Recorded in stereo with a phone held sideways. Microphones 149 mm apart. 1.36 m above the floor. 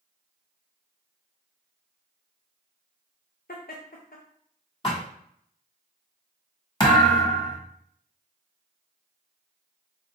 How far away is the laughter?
About 0.6 m.